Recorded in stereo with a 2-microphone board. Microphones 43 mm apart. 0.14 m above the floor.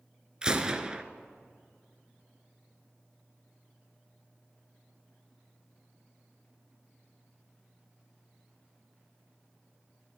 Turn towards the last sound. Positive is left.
turn(degrees=-15)  # may be behind; listen again after turning